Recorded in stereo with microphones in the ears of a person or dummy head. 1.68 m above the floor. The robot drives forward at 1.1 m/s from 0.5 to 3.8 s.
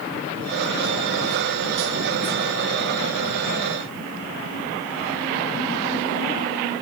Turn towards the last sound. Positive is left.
No sound to turn to.